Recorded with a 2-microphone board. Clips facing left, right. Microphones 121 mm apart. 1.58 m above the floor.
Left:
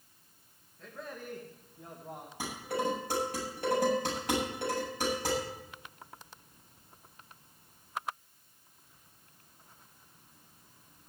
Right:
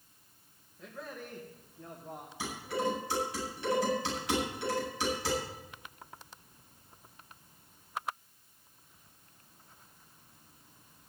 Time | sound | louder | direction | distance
0.8 | a man speaking | even | 5° right (ahead or behind) | 2 m
2.4 | dishes clattering | even | 50° left (ahead or behind) | 8 m